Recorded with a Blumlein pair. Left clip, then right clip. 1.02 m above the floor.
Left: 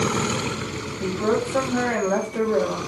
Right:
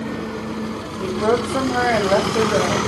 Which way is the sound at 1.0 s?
10° right.